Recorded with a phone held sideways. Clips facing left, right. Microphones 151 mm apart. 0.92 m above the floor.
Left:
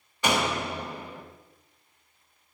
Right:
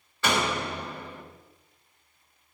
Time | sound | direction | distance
0.2 | a door slam | 15° left (ahead or behind) | 1.3 m